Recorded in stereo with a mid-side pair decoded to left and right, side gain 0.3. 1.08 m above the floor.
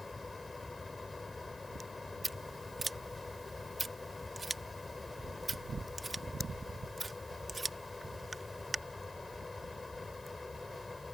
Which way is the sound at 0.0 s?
25° left.